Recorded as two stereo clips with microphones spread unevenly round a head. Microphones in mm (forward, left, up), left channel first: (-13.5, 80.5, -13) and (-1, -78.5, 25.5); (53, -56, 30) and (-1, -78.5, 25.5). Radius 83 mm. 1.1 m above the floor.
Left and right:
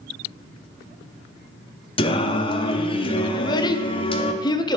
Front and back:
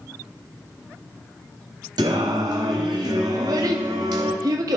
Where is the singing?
155° left, 0.9 m.